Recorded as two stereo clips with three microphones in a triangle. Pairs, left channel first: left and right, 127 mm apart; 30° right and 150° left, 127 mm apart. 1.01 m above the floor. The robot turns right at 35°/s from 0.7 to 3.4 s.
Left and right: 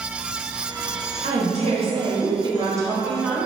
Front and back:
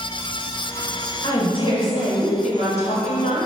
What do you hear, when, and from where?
1.2 s a woman speaking: 80° right, 1.1 m; by 3.5 s 5° right, 1.1 m